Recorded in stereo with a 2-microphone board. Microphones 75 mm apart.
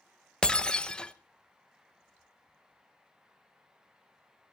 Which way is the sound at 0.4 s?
10° left (ahead or behind).